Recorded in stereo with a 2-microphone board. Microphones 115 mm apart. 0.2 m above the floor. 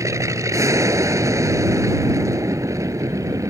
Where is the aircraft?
25° right (ahead or behind).